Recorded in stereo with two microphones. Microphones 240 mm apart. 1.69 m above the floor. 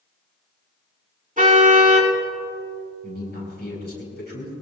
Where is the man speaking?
45° left (ahead or behind), 6 m.